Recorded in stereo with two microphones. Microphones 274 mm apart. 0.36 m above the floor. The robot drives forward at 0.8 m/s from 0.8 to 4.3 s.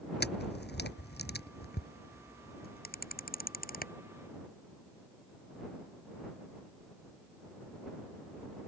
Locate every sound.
0.2 s a camera shutter: 35° left (ahead or behind); by 3.9 s 30° left (ahead or behind)